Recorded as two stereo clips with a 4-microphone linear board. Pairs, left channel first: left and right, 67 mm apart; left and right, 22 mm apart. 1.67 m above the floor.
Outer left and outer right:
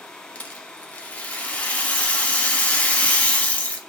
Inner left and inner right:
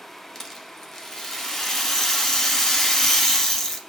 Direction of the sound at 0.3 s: 20° left (ahead or behind).